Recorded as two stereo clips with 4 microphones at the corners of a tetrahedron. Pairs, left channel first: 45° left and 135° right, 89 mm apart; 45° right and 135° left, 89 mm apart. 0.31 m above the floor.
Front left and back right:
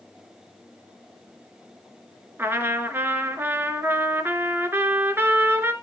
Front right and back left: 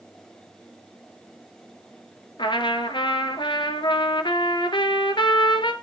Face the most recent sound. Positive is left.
turn(degrees=-70)